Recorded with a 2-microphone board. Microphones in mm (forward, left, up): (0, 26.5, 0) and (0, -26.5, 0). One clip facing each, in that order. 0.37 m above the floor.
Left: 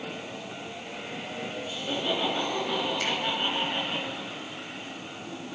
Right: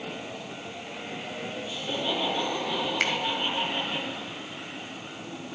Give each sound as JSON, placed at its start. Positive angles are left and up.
{"t": 1.7, "sound": "laughter", "side_deg": 35, "distance_m": 4.0}
{"t": 3.0, "sound": "a finger snap", "side_deg": -60, "distance_m": 1.4}